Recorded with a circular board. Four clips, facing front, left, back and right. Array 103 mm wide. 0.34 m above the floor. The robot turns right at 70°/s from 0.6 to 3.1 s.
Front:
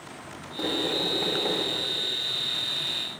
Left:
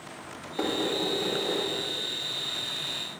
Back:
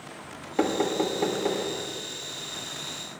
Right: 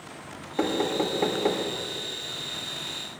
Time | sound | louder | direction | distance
0.6 | knocking | right 3 dB, back 5 dB | 160° right | 1.7 m